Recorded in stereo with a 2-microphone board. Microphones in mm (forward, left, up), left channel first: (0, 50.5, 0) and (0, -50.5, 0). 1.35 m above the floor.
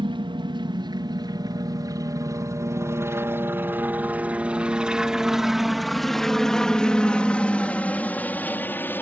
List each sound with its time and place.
0.0 s a helicopter: 55° right (ahead or behind); by 9.0 s 20° left (ahead or behind)